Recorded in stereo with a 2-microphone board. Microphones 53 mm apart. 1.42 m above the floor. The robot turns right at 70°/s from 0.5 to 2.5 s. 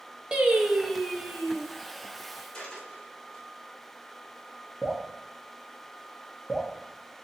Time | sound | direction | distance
0.3 | singing | 30° right | 0.7 m
2.5 | a dropped coin | 20° left (ahead or behind) | 1.4 m
4.8 | dripping | 15° left (ahead or behind) | 0.9 m